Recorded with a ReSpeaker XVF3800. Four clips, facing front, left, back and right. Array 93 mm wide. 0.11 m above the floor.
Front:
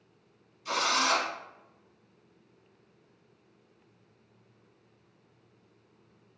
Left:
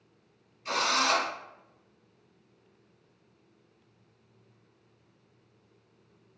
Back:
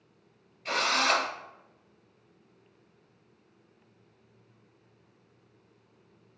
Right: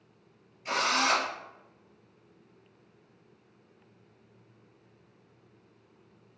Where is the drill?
170° right, 1.8 m.